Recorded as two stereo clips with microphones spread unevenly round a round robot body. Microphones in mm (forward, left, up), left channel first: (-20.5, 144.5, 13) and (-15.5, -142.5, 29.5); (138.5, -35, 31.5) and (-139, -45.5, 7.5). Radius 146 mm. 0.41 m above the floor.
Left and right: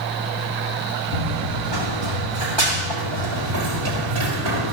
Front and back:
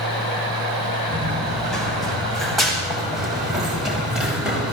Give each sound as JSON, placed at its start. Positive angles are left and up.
{"t": 1.1, "sound": "running footsteps", "azimuth_deg": -85, "distance_m": 9.0}